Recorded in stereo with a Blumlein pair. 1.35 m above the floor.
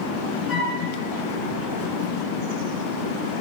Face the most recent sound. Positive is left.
turn(degrees=25)